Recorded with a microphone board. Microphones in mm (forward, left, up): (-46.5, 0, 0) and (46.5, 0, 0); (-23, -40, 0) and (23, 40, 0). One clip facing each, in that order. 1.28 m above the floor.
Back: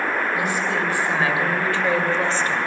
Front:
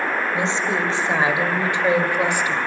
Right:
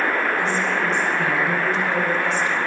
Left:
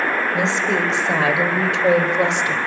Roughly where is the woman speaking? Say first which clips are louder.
Front 1 dB, left 2 dB; ahead left.